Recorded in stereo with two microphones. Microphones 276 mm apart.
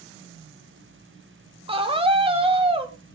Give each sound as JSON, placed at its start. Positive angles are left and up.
{"t": 1.7, "sound": "a scream", "side_deg": -20, "distance_m": 2.5}